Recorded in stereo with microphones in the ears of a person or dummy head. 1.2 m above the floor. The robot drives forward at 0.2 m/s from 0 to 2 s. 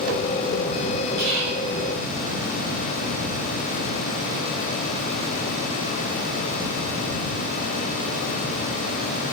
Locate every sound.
1.2 s whispering: 60° right (ahead or behind), 5.5 m